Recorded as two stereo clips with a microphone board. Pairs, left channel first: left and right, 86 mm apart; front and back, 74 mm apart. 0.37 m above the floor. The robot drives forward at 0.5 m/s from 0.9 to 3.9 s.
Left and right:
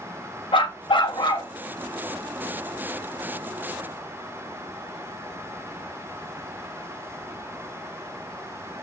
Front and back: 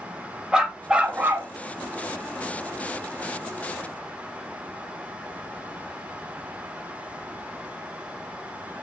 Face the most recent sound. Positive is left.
turn(degrees=160)